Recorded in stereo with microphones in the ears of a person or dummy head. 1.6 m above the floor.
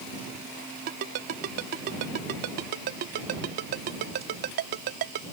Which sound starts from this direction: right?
A ringtone, at 0.9 s.